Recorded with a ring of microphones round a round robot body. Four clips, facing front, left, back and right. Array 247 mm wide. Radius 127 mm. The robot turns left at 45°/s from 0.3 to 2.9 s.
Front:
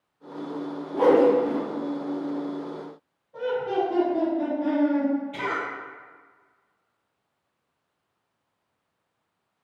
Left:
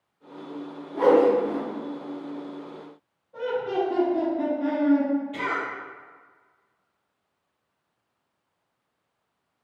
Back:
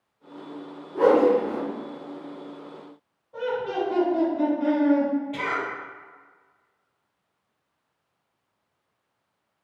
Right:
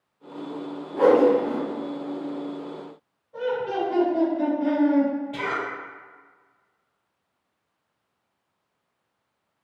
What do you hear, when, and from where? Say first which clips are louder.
0.9 s a whoosh: right 1 dB, even; 35° right, 0.9 m; by 1.6 s 65° right, 0.9 m
3.3 s laughter: even, front 1 dB; 170° right, 1.7 m
5.3 s a cough: even, back 1 dB; 130° right, 1.3 m